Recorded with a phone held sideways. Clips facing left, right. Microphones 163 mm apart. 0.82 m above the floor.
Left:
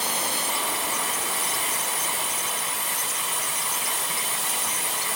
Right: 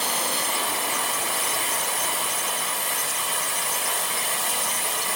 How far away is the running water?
About 1.1 m.